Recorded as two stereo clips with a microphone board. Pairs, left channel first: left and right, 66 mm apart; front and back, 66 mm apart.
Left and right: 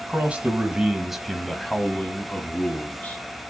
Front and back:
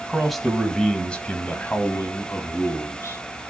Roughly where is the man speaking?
Right.